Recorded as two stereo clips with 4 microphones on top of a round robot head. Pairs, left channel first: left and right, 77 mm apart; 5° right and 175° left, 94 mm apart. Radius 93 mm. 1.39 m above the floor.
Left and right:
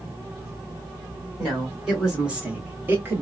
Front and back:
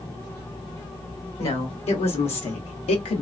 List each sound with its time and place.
1.4 s a woman speaking: straight ahead, 1.7 m; by 3.2 s 25° right, 0.9 m